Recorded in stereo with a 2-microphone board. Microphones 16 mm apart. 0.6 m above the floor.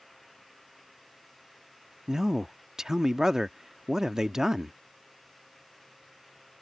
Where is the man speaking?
35° right (ahead or behind).